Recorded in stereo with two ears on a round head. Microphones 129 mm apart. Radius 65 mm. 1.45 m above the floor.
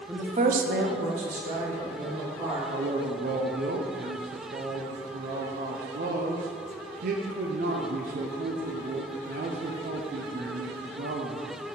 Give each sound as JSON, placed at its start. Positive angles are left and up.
{"t": 0.1, "sound": "a woman speaking", "side_deg": -15, "distance_m": 0.8}
{"t": 2.7, "sound": "a man speaking", "side_deg": -65, "distance_m": 0.6}